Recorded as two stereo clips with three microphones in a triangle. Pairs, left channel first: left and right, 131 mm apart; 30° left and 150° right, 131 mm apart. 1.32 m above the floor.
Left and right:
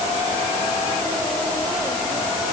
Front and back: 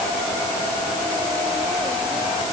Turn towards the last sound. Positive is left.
No sound to turn to.